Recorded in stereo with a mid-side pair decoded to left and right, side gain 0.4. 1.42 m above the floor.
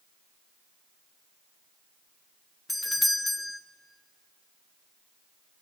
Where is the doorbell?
15° left, 0.9 m.